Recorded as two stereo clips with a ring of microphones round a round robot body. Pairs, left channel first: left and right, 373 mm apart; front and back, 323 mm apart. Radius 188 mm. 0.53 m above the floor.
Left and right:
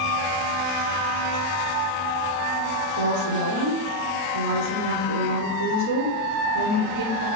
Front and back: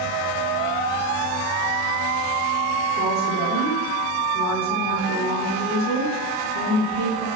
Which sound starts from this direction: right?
A woman speaking, at 3.0 s.